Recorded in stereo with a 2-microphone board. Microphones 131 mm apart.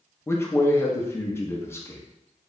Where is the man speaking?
20° left (ahead or behind), 0.5 m.